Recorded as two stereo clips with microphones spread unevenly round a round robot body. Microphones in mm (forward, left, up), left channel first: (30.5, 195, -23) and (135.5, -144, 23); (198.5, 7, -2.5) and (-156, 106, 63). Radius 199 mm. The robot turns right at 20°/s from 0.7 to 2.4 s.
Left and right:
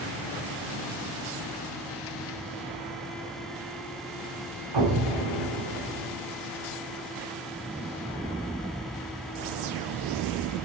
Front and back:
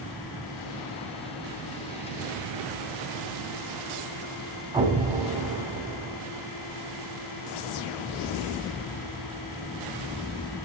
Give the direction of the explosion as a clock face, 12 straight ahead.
4 o'clock.